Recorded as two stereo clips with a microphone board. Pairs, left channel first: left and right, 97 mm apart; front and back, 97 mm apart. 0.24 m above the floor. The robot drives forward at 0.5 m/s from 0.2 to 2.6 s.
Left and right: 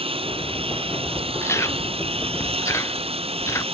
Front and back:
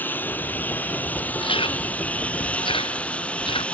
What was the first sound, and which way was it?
A lawn mower, 70° right.